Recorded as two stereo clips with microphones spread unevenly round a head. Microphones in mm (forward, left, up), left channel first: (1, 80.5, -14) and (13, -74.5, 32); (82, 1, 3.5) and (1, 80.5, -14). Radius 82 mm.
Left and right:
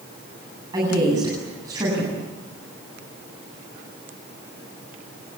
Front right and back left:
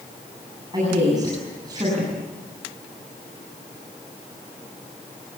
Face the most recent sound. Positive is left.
turn(degrees=-155)